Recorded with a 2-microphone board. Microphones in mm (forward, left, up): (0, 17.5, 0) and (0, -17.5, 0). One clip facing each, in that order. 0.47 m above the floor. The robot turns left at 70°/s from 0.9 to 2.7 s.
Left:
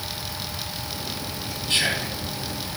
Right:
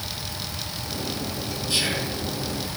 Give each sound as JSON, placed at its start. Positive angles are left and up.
{"t": 1.7, "sound": "whispering", "azimuth_deg": 55, "distance_m": 3.0}